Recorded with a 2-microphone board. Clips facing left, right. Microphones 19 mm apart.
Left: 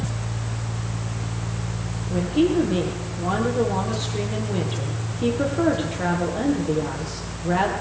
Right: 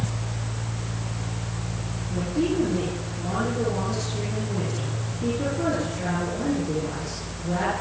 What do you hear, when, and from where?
2.1 s a woman speaking: 80° left, 9.5 m